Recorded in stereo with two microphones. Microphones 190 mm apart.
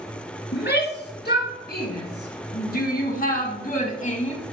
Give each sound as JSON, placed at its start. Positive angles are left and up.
{"t": 0.5, "sound": "a shout", "side_deg": 65, "distance_m": 2.5}